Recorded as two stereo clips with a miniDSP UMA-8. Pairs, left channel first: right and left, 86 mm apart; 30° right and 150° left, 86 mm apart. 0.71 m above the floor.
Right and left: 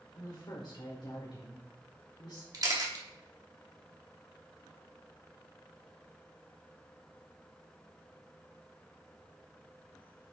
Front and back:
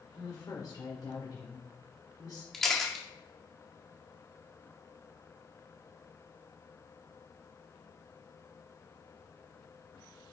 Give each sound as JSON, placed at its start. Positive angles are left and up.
{"t": 0.1, "sound": "a woman speaking", "azimuth_deg": -70, "distance_m": 2.0}
{"t": 2.5, "sound": "a camera shutter", "azimuth_deg": 55, "distance_m": 1.6}